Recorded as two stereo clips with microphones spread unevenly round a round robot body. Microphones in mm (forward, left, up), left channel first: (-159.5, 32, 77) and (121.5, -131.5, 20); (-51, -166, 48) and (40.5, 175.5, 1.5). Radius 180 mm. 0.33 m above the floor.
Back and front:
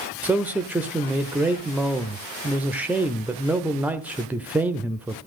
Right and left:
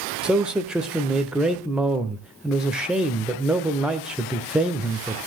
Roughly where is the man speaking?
Ahead.